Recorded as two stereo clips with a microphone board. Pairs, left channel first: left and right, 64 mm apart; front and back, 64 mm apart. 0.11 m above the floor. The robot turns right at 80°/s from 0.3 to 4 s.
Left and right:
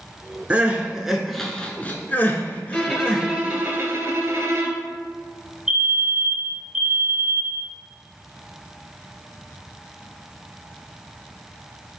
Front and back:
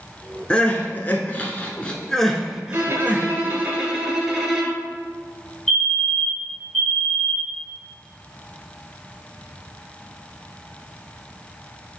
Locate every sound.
0.5 s crying: 55° right, 0.5 m; by 3.3 s 165° left, 0.5 m
2.7 s a violin: 160° left, 0.9 m; by 4.9 s 95° right, 0.9 m
5.7 s a fire alarm: 60° right, 2.0 m